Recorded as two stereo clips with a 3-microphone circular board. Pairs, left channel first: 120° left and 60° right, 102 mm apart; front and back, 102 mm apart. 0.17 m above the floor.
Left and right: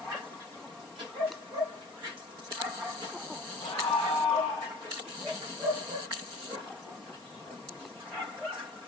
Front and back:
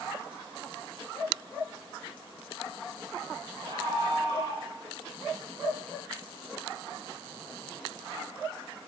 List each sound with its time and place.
3.6 s a scream: 135° left, 6 m